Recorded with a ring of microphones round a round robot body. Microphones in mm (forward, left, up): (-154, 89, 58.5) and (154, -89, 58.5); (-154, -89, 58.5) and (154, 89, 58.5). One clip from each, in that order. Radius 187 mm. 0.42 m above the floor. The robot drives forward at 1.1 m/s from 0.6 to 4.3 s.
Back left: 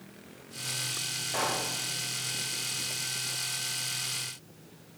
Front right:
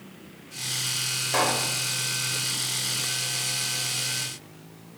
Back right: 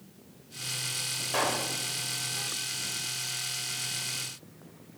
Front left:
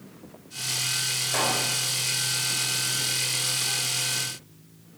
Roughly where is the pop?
Right.